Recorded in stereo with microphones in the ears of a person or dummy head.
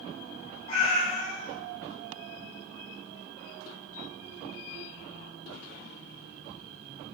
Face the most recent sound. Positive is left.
turn(degrees=30)  # may be behind; listen again after turning